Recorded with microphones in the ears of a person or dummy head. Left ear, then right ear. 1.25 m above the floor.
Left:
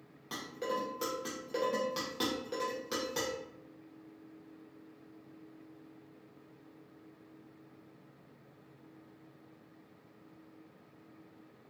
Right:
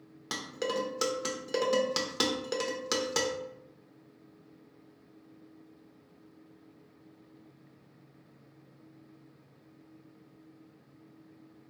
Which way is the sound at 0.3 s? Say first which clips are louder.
Right 4 dB; 40° right (ahead or behind).